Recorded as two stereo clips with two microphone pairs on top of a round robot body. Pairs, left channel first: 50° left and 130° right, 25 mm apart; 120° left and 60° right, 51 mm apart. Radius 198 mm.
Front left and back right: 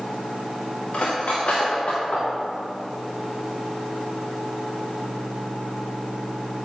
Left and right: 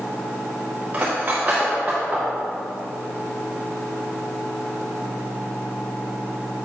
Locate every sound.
0.9 s cutlery clinking: 5° left, 0.6 m